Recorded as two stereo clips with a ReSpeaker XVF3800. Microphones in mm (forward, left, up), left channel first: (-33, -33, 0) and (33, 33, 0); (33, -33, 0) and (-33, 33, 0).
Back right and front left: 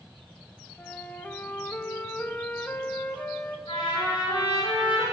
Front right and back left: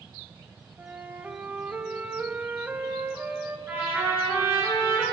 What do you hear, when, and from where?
0.8 s a flute: straight behind, 0.8 m
3.7 s a trumpet: 160° right, 6.5 m